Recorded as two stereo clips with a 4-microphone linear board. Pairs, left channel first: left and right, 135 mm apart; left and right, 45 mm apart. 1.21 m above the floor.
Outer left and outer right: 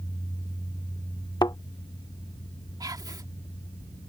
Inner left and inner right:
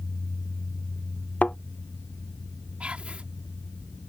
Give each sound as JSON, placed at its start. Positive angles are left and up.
{"t": 1.4, "sound": "a thud", "side_deg": 30}
{"t": 2.8, "sound": "whispering", "side_deg": -30}